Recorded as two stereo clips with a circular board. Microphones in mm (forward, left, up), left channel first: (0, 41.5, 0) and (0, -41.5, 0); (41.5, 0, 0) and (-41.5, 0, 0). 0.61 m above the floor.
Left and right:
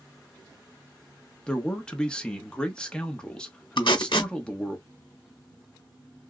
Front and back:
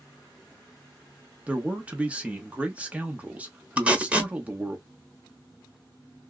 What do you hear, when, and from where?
1.5 s a man speaking: 145° left, 0.8 m
3.8 s tape being pulled: 105° left, 1.0 m